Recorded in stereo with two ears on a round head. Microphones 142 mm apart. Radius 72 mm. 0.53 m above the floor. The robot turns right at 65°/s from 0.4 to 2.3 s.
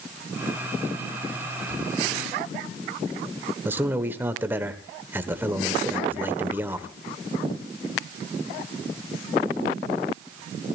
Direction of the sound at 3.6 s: 15° right (ahead or behind).